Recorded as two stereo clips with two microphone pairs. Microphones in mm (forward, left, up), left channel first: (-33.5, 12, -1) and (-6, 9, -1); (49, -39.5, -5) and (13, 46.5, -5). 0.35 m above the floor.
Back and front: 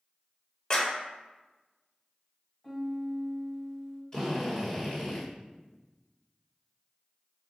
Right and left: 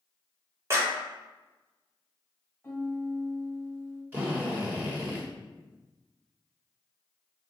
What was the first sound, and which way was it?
A clap, 145° left.